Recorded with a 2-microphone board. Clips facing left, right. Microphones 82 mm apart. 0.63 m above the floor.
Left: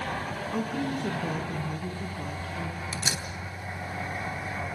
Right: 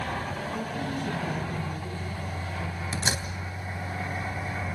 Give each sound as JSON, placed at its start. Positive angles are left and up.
{"t": 0.5, "sound": "a woman speaking", "side_deg": 75, "distance_m": 6.5}
{"t": 2.9, "sound": "a door slam", "side_deg": -40, "distance_m": 3.0}